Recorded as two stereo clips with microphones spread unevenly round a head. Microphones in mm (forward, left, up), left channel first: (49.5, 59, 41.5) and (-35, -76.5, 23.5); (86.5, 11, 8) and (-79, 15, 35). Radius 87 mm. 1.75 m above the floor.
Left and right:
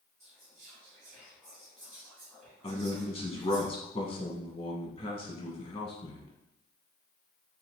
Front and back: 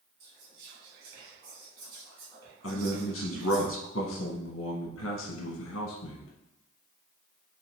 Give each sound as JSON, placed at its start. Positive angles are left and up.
{"t": 0.2, "sound": "whispering", "azimuth_deg": 145, "distance_m": 1.8}
{"t": 2.6, "sound": "a man speaking", "azimuth_deg": 0, "distance_m": 1.0}